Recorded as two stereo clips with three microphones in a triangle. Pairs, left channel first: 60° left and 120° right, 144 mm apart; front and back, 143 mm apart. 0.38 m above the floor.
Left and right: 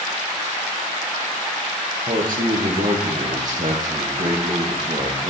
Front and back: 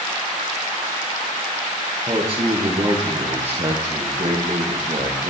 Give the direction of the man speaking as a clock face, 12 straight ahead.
4 o'clock.